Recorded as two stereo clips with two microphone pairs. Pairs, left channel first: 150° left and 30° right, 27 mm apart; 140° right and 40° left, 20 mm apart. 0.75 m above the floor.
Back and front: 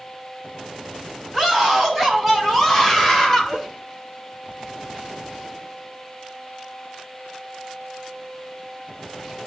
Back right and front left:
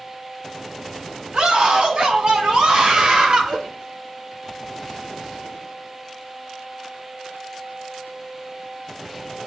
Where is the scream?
70° left, 5 m; by 3.6 s 85° left, 2.5 m.